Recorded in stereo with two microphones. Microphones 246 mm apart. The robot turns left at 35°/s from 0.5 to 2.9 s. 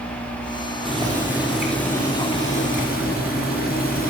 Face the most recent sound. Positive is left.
turn(degrees=135)